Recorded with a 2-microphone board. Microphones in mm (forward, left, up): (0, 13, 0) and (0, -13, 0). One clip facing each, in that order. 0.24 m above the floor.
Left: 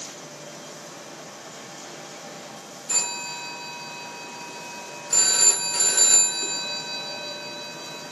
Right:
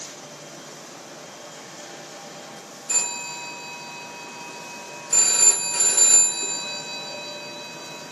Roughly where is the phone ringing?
Centre.